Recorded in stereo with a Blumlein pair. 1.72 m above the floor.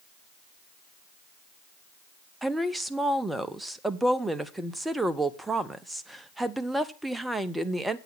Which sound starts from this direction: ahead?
A woman speaking, at 2.4 s.